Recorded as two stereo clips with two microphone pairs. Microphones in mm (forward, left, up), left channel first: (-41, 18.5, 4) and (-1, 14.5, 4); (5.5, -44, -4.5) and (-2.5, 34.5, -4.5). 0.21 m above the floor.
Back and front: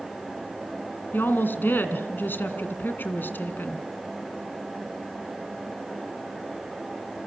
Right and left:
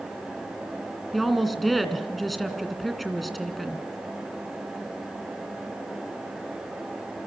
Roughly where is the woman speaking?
Behind.